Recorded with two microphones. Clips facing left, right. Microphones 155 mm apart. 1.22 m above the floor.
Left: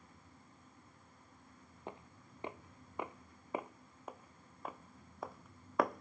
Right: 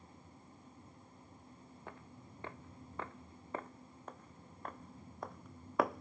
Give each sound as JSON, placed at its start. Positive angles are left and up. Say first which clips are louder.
{"t": 1.9, "sound": "footsteps", "louder": "left 4 dB", "side_deg": 20}